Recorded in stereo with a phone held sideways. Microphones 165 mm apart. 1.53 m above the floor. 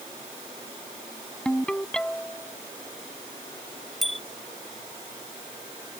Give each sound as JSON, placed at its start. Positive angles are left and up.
{"t": 1.4, "sound": "a ringtone", "side_deg": 5}
{"t": 4.0, "sound": "a bicycle bell", "side_deg": 0}